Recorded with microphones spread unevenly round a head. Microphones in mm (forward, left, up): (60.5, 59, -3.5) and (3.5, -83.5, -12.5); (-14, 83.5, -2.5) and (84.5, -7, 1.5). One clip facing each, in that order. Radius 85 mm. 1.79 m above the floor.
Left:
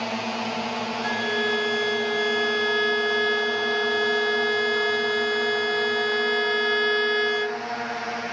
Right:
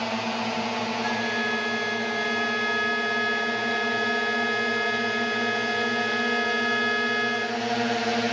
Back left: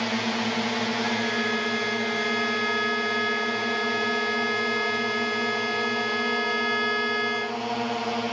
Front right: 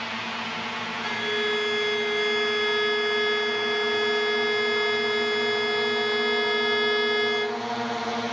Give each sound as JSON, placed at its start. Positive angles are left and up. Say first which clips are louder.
{"t": 0.0, "sound": "a drone", "louder": "even, back left 7 dB", "azimuth_deg": 155}
{"t": 1.0, "sound": "a violin", "louder": "left 2 dB, back left 1 dB", "azimuth_deg": 20}